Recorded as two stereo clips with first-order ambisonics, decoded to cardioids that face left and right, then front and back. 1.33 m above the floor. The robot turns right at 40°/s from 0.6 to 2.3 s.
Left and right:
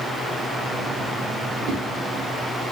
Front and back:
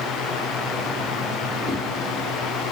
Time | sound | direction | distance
1.7 | a whoosh | 105° right | 0.8 m